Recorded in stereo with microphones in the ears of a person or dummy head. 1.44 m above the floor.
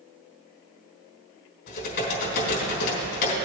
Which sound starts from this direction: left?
Typing on a keyboard, at 1.7 s.